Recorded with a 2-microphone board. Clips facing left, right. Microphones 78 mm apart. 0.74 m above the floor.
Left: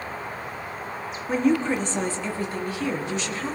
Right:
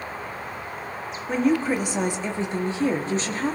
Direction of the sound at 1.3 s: Centre (ahead or behind).